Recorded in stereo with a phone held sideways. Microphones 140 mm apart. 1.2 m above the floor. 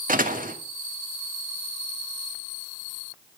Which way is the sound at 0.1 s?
75° right (ahead or behind).